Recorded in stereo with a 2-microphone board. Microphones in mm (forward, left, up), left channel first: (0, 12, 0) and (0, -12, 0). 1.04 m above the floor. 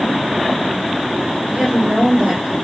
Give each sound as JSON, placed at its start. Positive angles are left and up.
{"t": 1.5, "sound": "a woman speaking", "side_deg": -60, "distance_m": 4.5}